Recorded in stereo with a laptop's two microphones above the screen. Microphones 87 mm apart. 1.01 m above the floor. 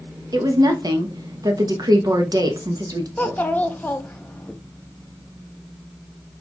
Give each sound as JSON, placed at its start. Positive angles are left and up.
{"t": 0.3, "sound": "a woman speaking", "side_deg": -50, "distance_m": 0.7}
{"t": 3.2, "sound": "a child speaking", "side_deg": 20, "distance_m": 0.6}